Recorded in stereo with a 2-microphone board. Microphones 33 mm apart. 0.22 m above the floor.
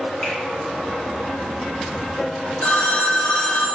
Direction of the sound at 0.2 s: 55° left (ahead or behind).